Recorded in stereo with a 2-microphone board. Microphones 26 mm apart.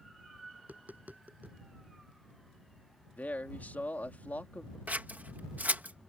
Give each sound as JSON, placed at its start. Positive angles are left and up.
{"t": 0.6, "sound": "tapping", "side_deg": -75}
{"t": 3.2, "sound": "a man speaking", "side_deg": 80}
{"t": 4.9, "sound": "scissors", "side_deg": -75}